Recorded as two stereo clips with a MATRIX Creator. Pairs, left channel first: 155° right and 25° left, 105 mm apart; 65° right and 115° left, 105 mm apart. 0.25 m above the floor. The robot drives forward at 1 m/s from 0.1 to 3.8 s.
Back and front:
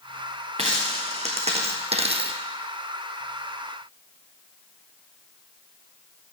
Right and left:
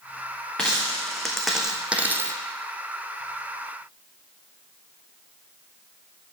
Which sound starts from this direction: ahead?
A dropped coin, at 0.6 s.